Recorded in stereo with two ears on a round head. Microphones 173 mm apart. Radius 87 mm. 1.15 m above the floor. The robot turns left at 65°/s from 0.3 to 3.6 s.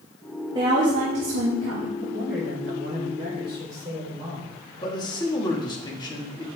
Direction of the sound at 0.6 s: 25° right.